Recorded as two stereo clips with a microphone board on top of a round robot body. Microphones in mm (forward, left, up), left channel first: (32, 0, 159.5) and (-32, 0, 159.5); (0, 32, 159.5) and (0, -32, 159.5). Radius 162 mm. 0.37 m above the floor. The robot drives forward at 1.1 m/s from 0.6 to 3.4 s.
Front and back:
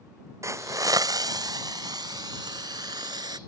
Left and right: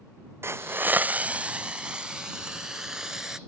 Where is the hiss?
140° right; by 3.4 s 170° right.